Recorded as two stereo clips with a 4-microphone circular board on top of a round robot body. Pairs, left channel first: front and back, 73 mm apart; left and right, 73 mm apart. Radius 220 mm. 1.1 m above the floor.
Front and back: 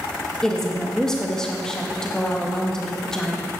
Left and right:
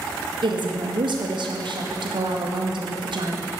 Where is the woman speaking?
85° right, 1.9 m.